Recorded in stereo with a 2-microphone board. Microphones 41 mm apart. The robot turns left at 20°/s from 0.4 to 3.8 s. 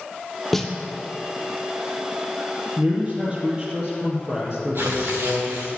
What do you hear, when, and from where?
0.5 s a snare drum: 5° left (ahead or behind), 1.5 m
2.8 s a man speaking: 40° right (ahead or behind), 4 m; by 5.8 s 20° right (ahead or behind), 4 m
4.8 s tearing paper: 65° right (ahead or behind), 3 m